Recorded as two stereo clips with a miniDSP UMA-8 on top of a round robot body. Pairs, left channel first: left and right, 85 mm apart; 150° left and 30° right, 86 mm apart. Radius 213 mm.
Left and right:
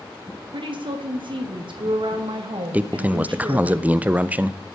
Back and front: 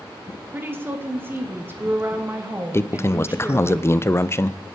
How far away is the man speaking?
About 0.7 m.